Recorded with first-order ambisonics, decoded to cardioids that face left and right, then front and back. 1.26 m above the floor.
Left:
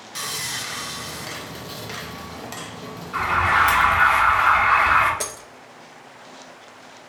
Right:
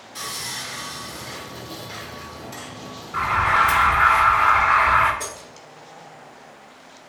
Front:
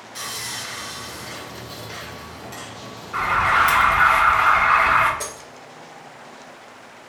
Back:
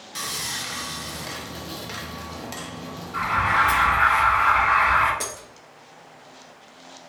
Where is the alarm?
45° left, 0.9 m.